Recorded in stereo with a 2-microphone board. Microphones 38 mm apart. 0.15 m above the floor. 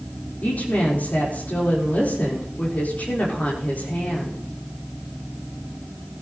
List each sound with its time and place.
0.4 s a woman speaking: 50° left (ahead or behind), 5.5 m